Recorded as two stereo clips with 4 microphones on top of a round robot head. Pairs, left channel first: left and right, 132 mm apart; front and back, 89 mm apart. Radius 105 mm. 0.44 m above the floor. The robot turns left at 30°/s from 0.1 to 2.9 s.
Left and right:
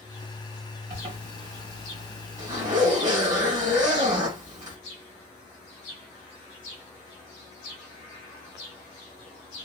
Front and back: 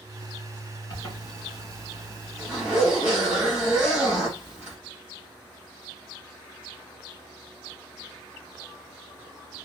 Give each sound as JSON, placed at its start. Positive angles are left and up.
{"t": 0.9, "sound": "a zipper", "azimuth_deg": -50, "distance_m": 2.5}